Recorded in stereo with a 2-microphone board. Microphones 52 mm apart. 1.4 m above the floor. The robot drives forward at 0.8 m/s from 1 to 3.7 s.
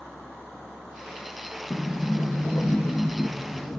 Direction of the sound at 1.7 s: 75° left (ahead or behind).